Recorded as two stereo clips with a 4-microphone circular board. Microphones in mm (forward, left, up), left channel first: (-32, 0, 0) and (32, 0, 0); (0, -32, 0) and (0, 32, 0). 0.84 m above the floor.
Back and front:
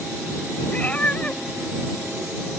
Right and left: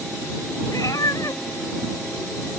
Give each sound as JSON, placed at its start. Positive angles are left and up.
{"t": 0.7, "sound": "a cat meowing", "azimuth_deg": -115}